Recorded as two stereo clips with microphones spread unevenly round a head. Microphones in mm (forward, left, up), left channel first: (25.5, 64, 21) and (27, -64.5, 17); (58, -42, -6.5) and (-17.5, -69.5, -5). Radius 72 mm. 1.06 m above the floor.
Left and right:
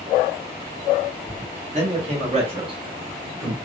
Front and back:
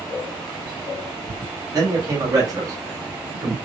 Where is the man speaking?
120° right, 1.5 m; by 3.5 s 145° right, 0.7 m.